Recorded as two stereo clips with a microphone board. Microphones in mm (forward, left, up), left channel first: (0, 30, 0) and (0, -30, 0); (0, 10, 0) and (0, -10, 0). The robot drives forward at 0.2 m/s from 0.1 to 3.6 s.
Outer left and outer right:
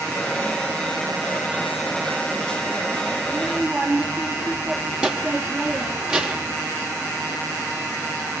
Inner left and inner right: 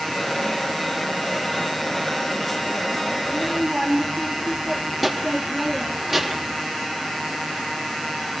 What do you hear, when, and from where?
3.2 s a child speaking: 15° right (ahead or behind), 3.5 m